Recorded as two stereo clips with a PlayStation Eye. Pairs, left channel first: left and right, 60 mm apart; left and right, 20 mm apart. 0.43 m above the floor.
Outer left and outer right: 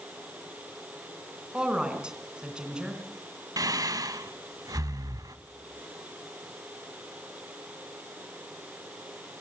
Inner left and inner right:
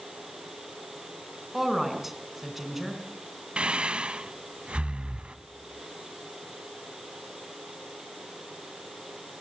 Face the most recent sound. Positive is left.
turn(degrees=-70)  # may be behind; listen again after turning